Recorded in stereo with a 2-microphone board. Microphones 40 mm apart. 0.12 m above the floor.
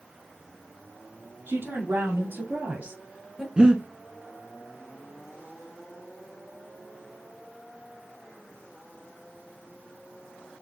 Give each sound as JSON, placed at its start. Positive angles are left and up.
{"t": 1.5, "sound": "a woman speaking", "side_deg": -60, "distance_m": 2.5}
{"t": 3.6, "sound": "breathing", "side_deg": -25, "distance_m": 1.0}